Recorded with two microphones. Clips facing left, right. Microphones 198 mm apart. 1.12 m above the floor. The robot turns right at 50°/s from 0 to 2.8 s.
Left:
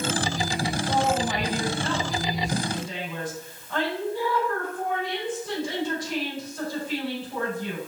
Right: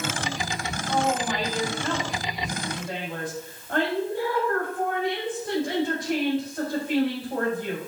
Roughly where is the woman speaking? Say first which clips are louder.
Right 1 dB; behind left.